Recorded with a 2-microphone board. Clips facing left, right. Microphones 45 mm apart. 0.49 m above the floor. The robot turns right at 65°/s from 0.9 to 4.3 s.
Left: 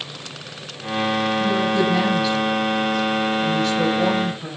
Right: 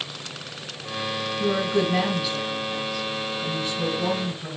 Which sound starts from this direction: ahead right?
A woman speaking, at 1.4 s.